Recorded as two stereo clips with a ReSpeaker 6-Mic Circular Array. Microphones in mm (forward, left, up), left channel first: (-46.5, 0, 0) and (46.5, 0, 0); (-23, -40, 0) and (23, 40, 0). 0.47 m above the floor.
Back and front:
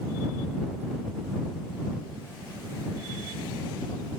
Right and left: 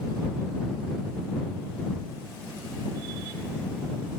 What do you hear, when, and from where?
Only background noise.